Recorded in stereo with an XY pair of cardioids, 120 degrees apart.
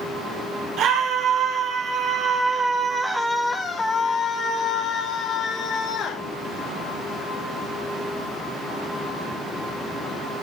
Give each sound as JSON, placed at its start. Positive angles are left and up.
{"t": 0.8, "sound": "a scream", "azimuth_deg": -65, "distance_m": 4.0}